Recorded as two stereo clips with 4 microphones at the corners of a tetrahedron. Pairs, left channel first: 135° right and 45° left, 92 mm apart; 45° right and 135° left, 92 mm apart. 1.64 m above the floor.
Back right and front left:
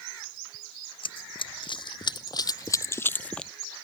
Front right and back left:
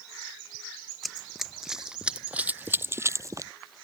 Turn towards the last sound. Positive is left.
turn(degrees=145)